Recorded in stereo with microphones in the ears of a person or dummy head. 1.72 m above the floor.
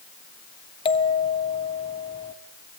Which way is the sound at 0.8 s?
20° left (ahead or behind).